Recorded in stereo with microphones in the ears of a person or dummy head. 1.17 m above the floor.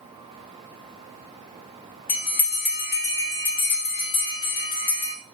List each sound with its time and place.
2.1 s a bell: 40° left (ahead or behind), 0.7 m